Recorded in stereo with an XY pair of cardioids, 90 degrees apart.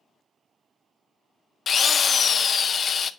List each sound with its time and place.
1.7 s a drill: 50° left, 0.5 m